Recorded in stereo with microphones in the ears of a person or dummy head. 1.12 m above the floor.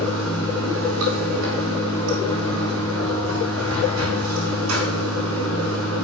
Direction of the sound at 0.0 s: 85° right.